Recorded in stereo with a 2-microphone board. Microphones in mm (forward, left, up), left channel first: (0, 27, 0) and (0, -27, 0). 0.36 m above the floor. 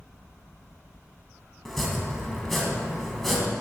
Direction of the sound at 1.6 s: 5° left (ahead or behind).